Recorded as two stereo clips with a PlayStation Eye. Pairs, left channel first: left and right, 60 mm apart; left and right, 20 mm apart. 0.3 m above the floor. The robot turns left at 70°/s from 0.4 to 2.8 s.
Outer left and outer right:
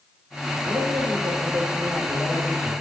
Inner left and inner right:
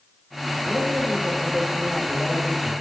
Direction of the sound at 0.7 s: 50° right.